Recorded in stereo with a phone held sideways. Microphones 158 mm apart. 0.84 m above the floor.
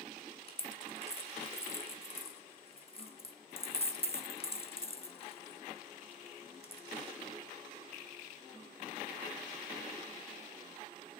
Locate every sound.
0.5 s a dropped coin: 40° left (ahead or behind), 0.6 m